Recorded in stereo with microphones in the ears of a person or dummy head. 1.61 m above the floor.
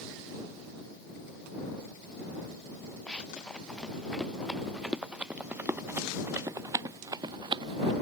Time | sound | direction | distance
3.1 | running footsteps | 5° left (ahead or behind) | ?